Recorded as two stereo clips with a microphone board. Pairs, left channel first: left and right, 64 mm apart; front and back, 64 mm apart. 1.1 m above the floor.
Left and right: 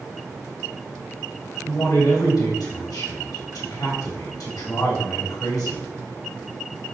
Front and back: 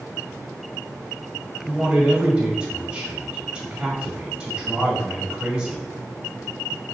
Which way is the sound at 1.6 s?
105° left.